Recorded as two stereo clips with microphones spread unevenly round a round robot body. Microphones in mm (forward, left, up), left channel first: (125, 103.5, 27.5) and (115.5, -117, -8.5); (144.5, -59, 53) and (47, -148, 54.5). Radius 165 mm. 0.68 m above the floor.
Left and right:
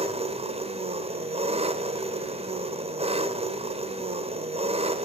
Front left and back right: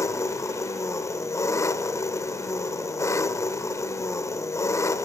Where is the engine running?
25° right, 1.2 m.